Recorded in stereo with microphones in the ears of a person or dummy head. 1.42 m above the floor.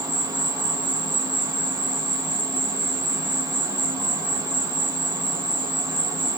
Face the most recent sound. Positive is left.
turn(degrees=-20)  # may be behind; listen again after turning